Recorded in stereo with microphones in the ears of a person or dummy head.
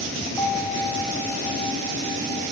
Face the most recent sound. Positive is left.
turn(degrees=5)  # may be behind; listen again after turning